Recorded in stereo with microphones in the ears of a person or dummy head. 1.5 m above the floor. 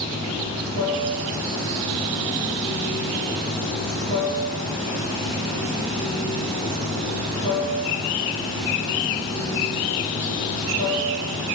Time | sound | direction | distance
0.0 | running water | 25° right (ahead or behind) | 1.8 m